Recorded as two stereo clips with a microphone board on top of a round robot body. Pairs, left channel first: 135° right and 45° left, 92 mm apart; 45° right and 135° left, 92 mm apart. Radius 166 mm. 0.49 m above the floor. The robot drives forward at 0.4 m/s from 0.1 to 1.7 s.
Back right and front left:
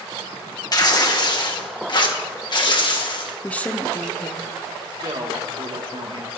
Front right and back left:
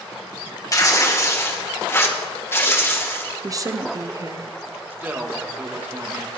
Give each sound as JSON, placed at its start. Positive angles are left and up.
{"t": 0.7, "sound": "tearing paper", "azimuth_deg": -95, "distance_m": 2.0}
{"t": 3.4, "sound": "a woman speaking", "azimuth_deg": 160, "distance_m": 1.0}
{"t": 4.9, "sound": "a woman speaking", "azimuth_deg": 70, "distance_m": 2.0}